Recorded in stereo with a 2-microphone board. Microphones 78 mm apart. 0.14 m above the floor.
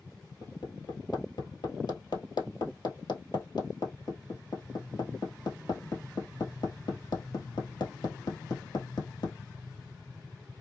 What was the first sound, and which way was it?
Hammering, 65° left (ahead or behind).